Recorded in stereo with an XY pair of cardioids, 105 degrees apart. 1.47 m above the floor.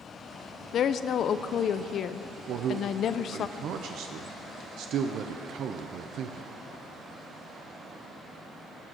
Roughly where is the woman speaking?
Ahead left.